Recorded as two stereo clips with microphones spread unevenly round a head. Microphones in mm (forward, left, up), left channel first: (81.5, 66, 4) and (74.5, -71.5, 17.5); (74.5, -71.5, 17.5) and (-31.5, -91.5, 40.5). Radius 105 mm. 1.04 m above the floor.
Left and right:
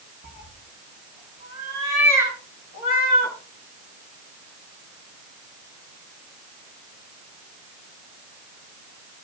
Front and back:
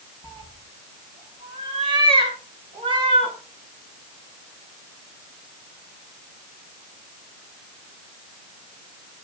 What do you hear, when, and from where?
0.2 s a cat meowing: 125° right, 3.5 m; by 3.4 s 135° right, 6 m